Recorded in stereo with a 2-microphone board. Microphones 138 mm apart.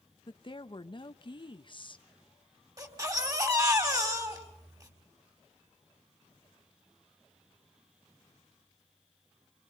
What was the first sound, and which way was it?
A woman speaking, 40° left (ahead or behind).